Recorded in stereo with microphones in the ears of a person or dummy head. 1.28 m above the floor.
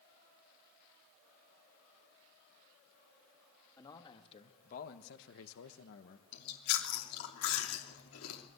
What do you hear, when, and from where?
3.8 s a man speaking: 20° left (ahead or behind), 2 m; by 6.2 s 60° left (ahead or behind), 1.3 m
6.3 s chewing: 85° left, 3 m